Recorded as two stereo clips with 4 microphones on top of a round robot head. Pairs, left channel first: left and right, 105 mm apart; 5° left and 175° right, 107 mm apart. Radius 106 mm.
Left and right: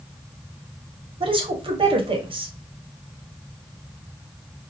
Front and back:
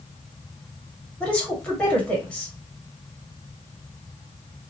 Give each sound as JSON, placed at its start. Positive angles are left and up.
{"t": 1.2, "sound": "a woman speaking", "azimuth_deg": -75, "distance_m": 1.1}